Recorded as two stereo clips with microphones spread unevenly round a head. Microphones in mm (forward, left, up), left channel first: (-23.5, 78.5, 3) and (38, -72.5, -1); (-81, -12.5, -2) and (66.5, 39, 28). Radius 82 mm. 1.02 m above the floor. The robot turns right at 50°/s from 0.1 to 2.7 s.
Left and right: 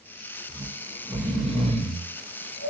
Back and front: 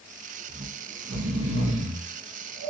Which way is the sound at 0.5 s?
30° right.